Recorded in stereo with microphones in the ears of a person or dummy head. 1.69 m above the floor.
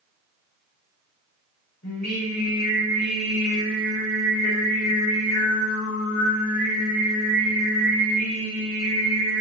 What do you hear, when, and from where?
1.8 s singing: 45° left (ahead or behind), 6.5 m